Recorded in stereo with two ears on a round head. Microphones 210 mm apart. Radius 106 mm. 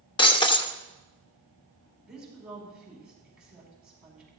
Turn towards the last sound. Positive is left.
turn(degrees=-5)  # may be behind; listen again after turning